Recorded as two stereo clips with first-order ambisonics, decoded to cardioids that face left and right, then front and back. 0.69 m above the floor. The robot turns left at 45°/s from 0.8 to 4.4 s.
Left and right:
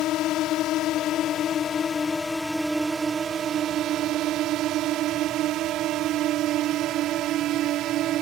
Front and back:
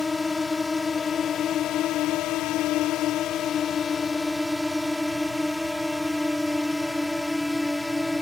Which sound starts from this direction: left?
A drone, at 0.0 s.